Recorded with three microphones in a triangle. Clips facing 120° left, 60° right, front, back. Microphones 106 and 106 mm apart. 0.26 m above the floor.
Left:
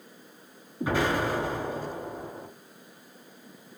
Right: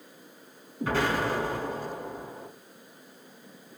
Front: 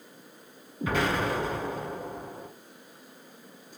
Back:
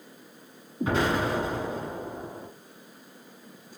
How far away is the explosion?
About 1.8 m.